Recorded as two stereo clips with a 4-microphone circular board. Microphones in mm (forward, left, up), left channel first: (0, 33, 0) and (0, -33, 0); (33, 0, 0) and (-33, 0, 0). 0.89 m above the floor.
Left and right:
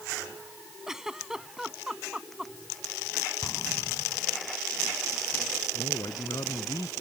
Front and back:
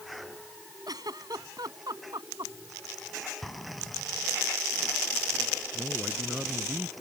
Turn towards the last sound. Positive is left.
turn(degrees=110)